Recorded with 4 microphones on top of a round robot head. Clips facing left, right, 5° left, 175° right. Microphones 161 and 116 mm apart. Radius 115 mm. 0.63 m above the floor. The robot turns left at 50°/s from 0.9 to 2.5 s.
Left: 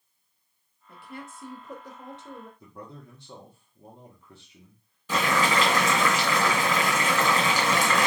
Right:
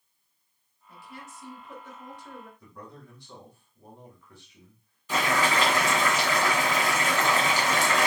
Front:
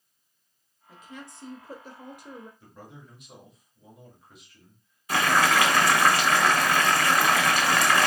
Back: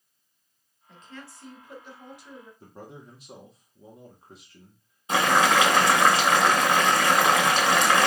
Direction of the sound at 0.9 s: 95° left.